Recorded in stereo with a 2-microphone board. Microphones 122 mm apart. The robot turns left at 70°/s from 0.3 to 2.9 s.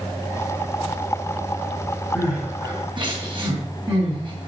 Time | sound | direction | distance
2.1 | crying | centre (ahead or behind) | 3 m